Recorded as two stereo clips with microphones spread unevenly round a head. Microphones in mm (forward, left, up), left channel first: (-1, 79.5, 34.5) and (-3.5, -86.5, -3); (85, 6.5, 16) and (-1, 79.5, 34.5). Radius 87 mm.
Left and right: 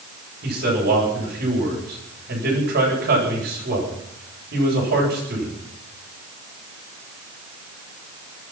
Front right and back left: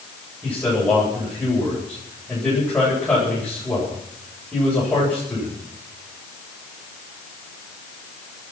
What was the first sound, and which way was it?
A man speaking, 120° right.